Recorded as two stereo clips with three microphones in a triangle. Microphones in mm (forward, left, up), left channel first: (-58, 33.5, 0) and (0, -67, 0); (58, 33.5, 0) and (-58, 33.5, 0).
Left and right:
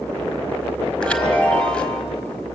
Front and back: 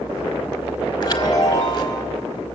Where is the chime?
40° left, 1.7 m.